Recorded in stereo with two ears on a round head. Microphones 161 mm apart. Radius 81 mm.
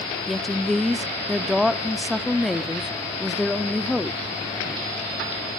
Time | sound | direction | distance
0.3 | a woman speaking | centre (ahead or behind) | 0.7 m